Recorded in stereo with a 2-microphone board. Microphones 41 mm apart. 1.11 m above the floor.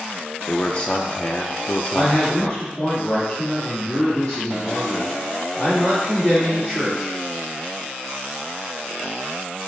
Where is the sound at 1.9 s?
10° left (ahead or behind), 2.5 m.